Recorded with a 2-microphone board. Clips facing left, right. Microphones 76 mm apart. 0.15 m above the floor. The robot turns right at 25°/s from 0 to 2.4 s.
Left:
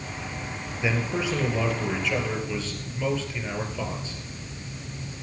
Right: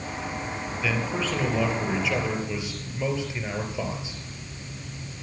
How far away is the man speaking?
About 3.5 m.